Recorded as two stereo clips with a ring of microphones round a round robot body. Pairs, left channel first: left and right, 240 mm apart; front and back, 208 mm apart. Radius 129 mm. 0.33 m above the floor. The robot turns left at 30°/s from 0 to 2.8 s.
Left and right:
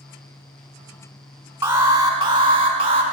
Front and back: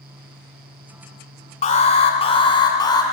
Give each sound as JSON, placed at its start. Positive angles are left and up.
{"t": 1.6, "sound": "an alarm", "azimuth_deg": -15, "distance_m": 1.8}